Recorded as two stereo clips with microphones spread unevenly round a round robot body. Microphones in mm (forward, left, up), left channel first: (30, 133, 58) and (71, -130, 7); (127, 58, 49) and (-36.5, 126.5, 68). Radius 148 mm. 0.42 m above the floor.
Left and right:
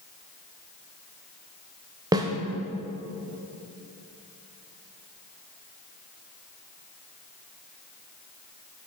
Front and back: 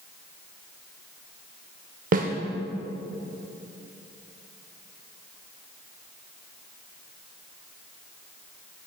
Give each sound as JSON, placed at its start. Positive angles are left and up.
{"t": 2.1, "sound": "a snare drum", "azimuth_deg": -155, "distance_m": 0.6}